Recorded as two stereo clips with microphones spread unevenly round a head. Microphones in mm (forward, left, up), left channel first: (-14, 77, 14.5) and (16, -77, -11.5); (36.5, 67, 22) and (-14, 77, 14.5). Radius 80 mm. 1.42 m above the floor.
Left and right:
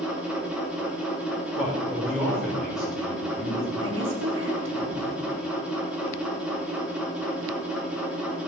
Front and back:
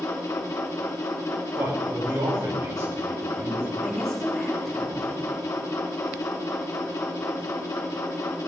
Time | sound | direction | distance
0.0 | a machine running | 5° left | 2 m
1.6 | a man speaking | 165° right | 5.5 m
3.8 | a woman speaking | 70° right | 4 m